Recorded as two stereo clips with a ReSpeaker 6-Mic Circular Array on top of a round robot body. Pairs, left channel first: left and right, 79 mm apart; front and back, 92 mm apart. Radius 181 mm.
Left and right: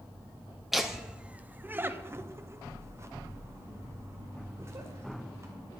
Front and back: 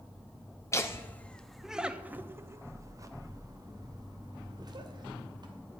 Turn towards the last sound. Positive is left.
turn(degrees=-145)